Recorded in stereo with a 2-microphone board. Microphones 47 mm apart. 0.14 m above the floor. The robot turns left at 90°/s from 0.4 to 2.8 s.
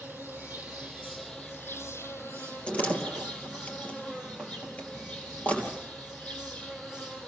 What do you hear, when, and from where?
0.0 s an insect: 110° right, 3.5 m; by 7.3 s 35° left, 3.5 m
2.7 s a door slam: 20° left (ahead or behind), 3 m; by 5.8 s 35° left (ahead or behind), 3 m